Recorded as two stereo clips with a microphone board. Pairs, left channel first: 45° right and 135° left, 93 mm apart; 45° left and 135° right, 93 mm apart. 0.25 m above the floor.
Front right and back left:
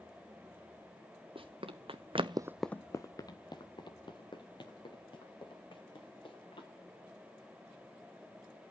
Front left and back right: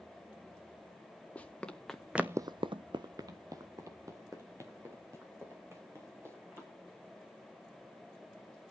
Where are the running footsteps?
120° left, 1.7 m; by 6.7 s 75° right, 6 m.